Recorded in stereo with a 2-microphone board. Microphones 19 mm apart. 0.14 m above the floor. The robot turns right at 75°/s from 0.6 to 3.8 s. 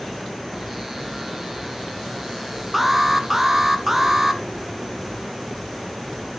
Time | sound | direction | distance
2.7 | an alarm | 10° right (ahead or behind) | 0.9 m